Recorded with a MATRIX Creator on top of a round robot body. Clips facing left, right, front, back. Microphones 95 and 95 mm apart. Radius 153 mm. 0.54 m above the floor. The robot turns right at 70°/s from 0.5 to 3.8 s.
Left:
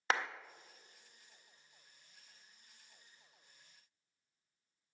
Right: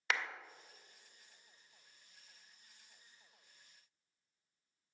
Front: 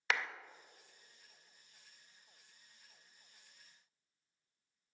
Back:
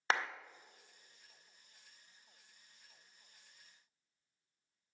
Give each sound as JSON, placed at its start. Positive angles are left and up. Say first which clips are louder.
{"t": 0.1, "sound": "a clap", "louder": "left 3 dB, back 2 dB", "azimuth_deg": 130, "distance_m": 0.6}